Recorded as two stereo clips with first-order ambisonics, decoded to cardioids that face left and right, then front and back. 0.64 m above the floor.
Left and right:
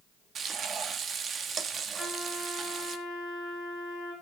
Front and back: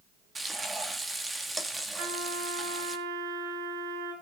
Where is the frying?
110° right, 1.3 m.